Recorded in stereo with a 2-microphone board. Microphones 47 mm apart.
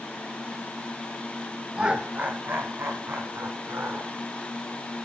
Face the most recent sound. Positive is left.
turn(degrees=-65)  # may be behind; listen again after turning